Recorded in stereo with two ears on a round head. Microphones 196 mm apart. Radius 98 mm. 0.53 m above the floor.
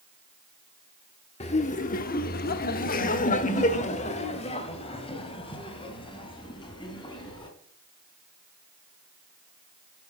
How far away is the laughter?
About 1.1 m.